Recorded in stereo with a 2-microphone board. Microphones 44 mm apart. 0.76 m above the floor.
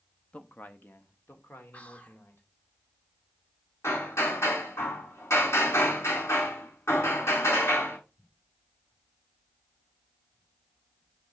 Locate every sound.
0.3 s a man speaking: 30° left (ahead or behind), 0.9 m; by 2.5 s 60° left (ahead or behind), 3.5 m
1.7 s whispering: 35° left (ahead or behind), 2.5 m
3.8 s hammering: 85° left, 7.5 m